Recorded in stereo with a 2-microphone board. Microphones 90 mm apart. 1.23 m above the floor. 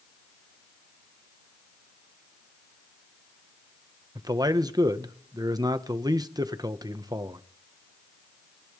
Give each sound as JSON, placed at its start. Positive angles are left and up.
{"t": 4.2, "sound": "a man speaking", "side_deg": -45, "distance_m": 1.3}